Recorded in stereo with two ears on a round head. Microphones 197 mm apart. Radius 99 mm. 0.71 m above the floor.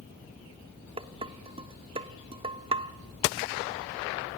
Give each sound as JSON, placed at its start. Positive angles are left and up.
{"t": 1.0, "sound": "dishes clattering", "side_deg": -25, "distance_m": 0.7}